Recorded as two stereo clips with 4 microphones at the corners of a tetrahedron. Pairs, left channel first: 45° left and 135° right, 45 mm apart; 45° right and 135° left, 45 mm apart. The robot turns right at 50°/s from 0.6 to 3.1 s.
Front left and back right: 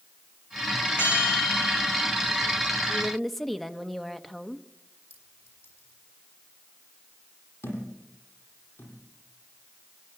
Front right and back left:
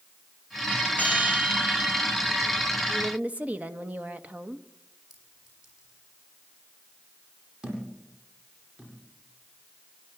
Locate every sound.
1.0 s a bell: 10° left, 9 m; by 2.1 s 70° left, 9 m
2.9 s a woman speaking: 115° left, 0.9 m; by 4.7 s 125° left, 0.9 m
5.1 s a clink: 55° left, 8 m
7.6 s a thud: 55° left, 8 m